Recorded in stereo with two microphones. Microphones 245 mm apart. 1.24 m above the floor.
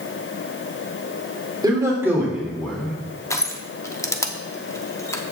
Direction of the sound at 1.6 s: 15° right (ahead or behind).